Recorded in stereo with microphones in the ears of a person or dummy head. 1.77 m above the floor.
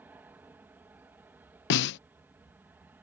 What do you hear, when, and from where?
0.0 s an aircraft: 10° right (ahead or behind)
1.7 s a snare drum: 65° left (ahead or behind)